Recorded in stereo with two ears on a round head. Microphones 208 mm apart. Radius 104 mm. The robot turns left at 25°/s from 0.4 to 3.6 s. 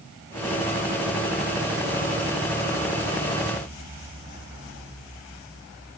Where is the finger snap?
No finger snap in this recording.